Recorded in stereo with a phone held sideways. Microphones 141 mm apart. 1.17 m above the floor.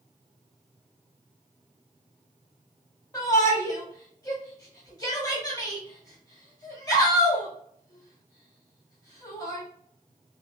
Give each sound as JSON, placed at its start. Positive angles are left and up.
{"t": 3.1, "sound": "a shout", "side_deg": 25, "distance_m": 2.5}